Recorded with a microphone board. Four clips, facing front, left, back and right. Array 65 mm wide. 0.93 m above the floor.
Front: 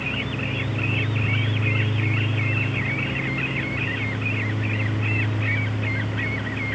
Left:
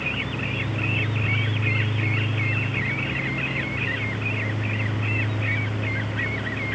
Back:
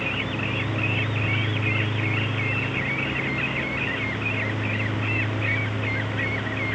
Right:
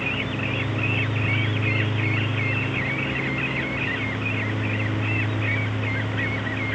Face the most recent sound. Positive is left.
No sound to turn to.